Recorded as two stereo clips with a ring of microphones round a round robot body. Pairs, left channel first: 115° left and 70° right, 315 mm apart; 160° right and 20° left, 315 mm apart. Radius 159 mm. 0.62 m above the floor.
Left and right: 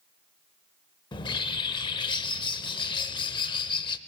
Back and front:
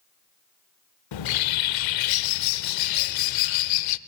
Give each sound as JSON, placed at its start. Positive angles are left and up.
{"t": 1.1, "sound": "a bird", "azimuth_deg": -170, "distance_m": 0.5}